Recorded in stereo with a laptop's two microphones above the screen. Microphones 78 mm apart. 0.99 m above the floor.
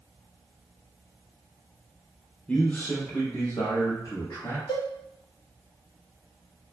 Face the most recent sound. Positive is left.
turn(degrees=70)  # may be behind; listen again after turning